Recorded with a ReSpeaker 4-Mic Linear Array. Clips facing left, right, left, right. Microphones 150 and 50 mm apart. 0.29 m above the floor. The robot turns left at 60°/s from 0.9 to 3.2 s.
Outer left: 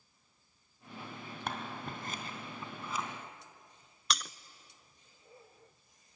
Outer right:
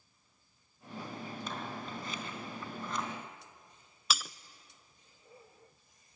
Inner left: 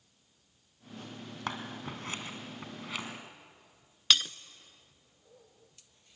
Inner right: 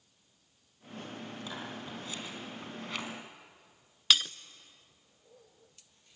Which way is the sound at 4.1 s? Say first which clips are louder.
Even, even; 5° right (ahead or behind).